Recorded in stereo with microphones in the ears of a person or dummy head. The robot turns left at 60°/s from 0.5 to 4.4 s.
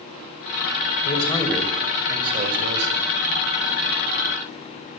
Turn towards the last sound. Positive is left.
turn(degrees=-155)